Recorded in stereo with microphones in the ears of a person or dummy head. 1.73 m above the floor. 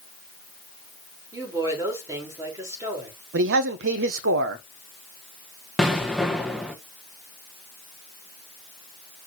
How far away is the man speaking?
About 1.0 m.